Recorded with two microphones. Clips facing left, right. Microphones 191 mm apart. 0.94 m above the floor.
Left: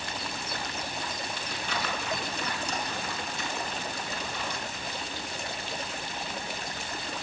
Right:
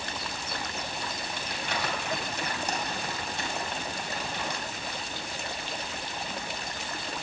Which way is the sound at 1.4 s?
70° right (ahead or behind).